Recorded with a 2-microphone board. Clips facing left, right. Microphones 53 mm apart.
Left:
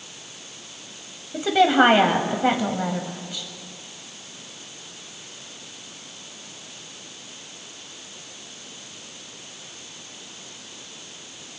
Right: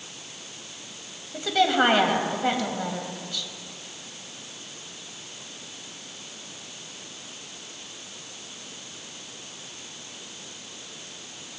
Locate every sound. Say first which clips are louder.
1.3 s a woman speaking: left 5 dB; 20° left (ahead or behind), 1.0 m